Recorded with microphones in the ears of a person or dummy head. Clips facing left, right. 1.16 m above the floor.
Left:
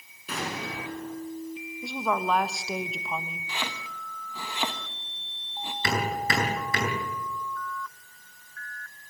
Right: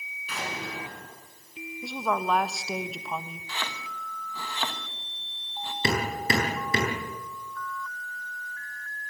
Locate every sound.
0.3 s an explosion: 40° left (ahead or behind), 6.5 m
1.8 s a woman speaking: centre (ahead or behind), 1.1 m
3.5 s chopping: 10° left (ahead or behind), 1.3 m
5.8 s hammering: 20° right (ahead or behind), 8 m